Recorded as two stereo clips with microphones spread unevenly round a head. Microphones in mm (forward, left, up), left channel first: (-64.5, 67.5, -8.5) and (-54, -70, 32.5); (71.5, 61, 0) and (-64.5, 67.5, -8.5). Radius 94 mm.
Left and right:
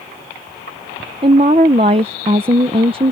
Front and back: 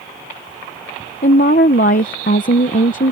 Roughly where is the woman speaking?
Ahead right.